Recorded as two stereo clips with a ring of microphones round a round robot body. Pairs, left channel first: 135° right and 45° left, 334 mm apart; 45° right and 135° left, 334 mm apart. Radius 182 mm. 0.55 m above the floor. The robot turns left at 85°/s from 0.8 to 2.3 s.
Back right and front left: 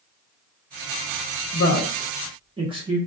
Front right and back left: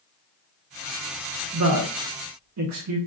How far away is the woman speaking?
About 0.9 m.